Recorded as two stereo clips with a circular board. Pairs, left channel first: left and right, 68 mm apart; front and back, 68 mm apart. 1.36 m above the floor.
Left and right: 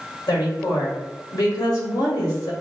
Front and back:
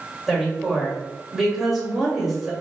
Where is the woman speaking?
95° left, 1.7 m.